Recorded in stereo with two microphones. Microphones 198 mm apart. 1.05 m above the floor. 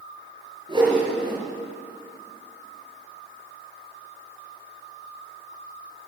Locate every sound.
0.7 s a whoosh: 25° right (ahead or behind), 4.5 m